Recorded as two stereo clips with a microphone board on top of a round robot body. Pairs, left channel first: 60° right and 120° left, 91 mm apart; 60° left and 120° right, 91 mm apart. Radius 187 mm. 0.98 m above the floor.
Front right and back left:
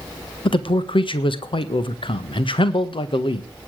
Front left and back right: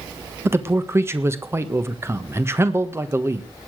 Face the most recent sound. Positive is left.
turn(degrees=-60)